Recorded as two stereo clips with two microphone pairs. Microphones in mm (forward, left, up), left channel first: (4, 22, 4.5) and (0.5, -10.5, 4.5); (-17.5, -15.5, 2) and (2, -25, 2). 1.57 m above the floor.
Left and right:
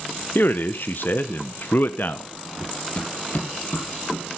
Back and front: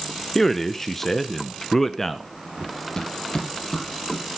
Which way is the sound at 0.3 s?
80° left.